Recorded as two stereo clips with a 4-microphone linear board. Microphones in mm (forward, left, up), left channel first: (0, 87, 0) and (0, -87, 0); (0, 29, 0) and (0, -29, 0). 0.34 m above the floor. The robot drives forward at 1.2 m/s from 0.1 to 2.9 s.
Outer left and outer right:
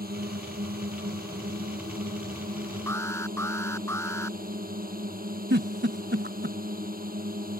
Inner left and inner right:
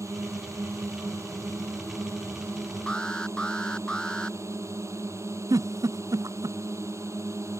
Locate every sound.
0.0 s a drone: 55° right (ahead or behind); by 7.6 s 50° right (ahead or behind)
2.9 s an alarm: 15° left (ahead or behind)
5.5 s a giggle: 75° right (ahead or behind)